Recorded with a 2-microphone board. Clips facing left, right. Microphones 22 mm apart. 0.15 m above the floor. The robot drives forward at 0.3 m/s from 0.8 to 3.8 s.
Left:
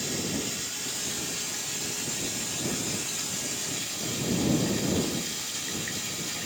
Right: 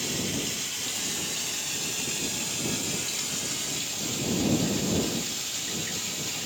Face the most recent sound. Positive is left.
turn(degrees=-50)  # may be behind; listen again after turning